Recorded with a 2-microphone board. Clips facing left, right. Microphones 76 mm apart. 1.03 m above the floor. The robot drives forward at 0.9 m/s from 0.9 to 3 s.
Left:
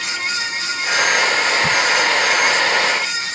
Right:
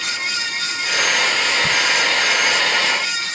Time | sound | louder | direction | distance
1.6 | a crack | left 2 dB | 20° left (ahead or behind) | ?